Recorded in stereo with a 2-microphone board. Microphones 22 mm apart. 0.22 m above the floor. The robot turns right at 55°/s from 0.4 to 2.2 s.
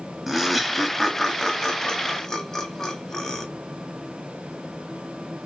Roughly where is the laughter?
Centre.